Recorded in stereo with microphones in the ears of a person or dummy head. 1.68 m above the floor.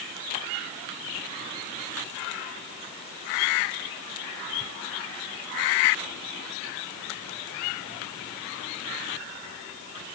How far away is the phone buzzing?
I don't hear a phone buzzing.